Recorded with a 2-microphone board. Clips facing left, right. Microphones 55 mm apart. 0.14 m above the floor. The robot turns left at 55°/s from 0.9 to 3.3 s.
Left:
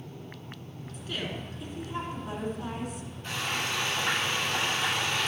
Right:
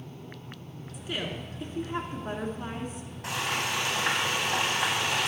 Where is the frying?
80° right, 3.5 m.